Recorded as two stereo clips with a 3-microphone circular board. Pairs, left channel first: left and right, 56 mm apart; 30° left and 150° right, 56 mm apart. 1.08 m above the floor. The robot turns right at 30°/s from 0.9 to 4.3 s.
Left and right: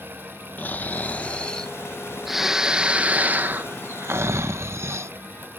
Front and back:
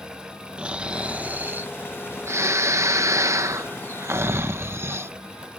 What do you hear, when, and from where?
0.6 s snoring: 140° left; by 5.1 s 115° right